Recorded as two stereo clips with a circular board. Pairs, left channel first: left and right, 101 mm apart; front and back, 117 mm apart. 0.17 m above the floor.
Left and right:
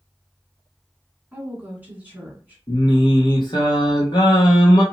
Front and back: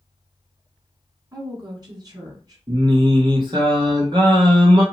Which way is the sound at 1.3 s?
155° right.